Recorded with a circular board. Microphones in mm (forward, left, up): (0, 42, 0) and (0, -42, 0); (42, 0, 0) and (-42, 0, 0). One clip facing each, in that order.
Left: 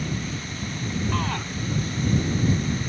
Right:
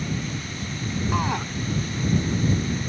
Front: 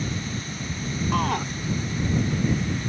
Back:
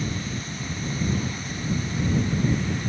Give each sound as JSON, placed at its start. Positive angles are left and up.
{"t": 1.1, "sound": "a shout", "azimuth_deg": -15}